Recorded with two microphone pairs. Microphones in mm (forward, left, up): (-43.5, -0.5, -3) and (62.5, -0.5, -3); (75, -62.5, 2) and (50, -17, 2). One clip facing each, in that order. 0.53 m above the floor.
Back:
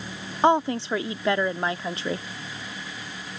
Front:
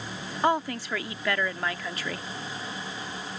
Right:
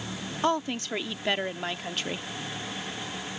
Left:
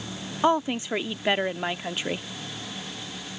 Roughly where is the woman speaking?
Behind.